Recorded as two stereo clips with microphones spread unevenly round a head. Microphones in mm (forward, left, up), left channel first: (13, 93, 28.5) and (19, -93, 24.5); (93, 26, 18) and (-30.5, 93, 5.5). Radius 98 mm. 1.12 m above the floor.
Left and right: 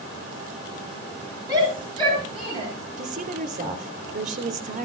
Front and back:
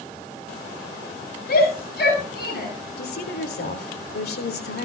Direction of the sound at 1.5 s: 20° right.